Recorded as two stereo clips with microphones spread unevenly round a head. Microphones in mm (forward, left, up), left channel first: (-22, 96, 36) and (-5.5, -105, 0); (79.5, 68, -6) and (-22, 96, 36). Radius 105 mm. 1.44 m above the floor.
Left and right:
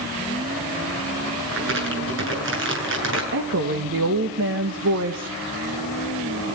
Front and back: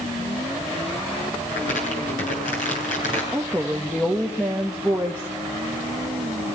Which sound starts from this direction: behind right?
A woman speaking, at 3.3 s.